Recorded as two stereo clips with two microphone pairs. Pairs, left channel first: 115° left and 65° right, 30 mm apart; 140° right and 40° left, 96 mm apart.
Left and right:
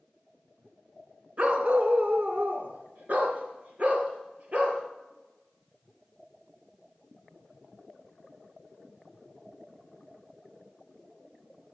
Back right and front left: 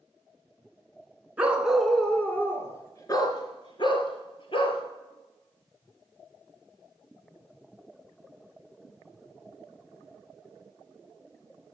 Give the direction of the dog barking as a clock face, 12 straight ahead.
1 o'clock.